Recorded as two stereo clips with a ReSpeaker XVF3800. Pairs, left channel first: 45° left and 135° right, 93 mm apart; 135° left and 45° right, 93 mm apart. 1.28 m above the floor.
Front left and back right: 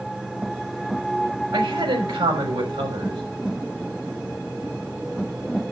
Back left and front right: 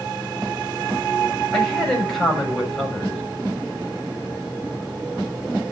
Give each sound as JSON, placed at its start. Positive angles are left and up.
{"t": 1.5, "sound": "a man speaking", "azimuth_deg": -140, "distance_m": 6.5}